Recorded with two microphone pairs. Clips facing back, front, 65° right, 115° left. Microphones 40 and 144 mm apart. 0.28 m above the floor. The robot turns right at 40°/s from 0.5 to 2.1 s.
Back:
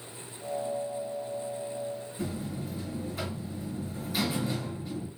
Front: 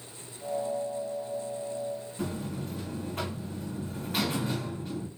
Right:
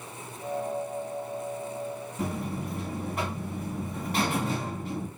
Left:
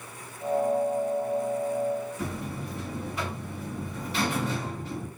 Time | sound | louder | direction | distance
2.2 | a buzzer | even, right 2 dB | 35° right | 2.5 m